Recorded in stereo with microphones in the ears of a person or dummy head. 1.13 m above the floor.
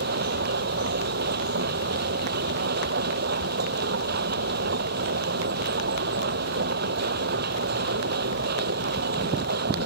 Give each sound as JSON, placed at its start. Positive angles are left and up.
{"t": 0.0, "sound": "a machine running", "side_deg": -55}